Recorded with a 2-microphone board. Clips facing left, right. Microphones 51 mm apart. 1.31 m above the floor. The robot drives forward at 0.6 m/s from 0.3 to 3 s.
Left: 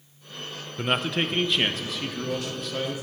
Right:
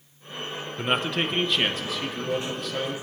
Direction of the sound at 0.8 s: Centre (ahead or behind).